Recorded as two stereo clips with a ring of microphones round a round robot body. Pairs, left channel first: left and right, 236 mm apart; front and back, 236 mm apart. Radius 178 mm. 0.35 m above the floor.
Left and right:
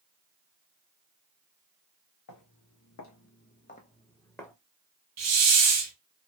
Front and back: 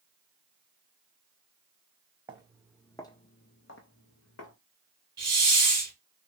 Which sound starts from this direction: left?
Footsteps, at 2.3 s.